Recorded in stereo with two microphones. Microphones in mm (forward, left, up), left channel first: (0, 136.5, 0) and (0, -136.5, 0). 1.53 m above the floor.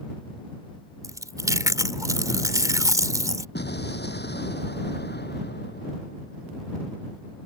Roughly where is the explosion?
Left.